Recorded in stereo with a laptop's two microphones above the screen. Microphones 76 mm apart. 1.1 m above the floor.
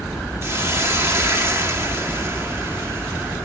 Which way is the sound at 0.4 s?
35° right (ahead or behind).